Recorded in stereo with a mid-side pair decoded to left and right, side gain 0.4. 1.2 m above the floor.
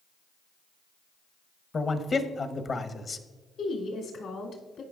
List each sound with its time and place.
1.7 s a man speaking: 45° left, 0.9 m
3.6 s a woman speaking: 70° left, 2.5 m